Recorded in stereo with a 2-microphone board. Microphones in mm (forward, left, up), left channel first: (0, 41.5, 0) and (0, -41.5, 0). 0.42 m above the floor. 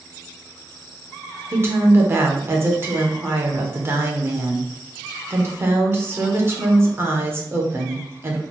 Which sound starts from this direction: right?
A woman speaking, at 1.5 s.